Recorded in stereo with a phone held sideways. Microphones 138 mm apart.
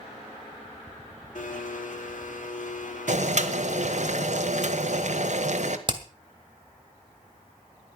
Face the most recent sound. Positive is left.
turn(degrees=-35)  # may be behind; listen again after turning